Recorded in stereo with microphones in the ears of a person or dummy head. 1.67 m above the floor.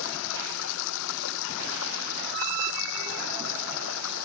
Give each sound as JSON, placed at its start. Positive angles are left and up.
{"t": 0.0, "sound": "running water", "side_deg": 70}